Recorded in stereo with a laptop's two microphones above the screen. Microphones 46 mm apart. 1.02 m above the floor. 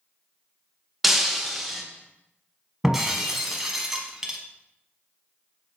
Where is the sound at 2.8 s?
10° right (ahead or behind), 0.9 m.